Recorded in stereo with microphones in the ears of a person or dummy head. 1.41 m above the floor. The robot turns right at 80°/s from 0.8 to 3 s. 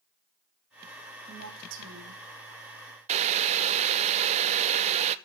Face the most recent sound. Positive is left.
turn(degrees=-35)  # may be behind; listen again after turning